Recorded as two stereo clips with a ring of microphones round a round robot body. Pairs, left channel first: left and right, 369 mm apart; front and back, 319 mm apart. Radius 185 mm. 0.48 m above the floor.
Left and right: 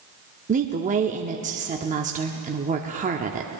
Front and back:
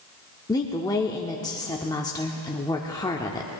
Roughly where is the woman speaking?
Ahead right.